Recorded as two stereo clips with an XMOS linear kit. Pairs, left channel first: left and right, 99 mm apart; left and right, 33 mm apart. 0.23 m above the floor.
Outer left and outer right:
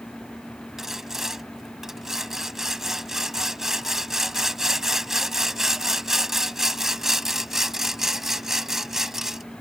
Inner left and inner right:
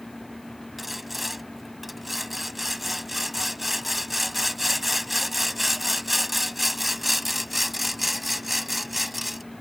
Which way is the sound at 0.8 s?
5° right (ahead or behind).